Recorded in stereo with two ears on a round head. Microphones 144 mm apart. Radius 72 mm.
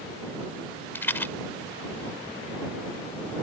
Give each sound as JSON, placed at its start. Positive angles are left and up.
{"t": 0.9, "sound": "a rattle", "side_deg": 15}